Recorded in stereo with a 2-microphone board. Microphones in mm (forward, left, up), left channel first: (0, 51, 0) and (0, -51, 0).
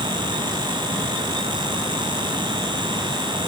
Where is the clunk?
I don't hear a clunk.